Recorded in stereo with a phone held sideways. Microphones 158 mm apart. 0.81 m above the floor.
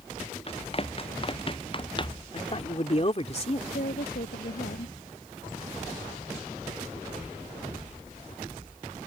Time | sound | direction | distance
0.5 | running footsteps | 40° left (ahead or behind) | ?
2.3 | a man speaking | 45° left (ahead or behind) | ?
3.7 | a woman speaking | 90° left | ?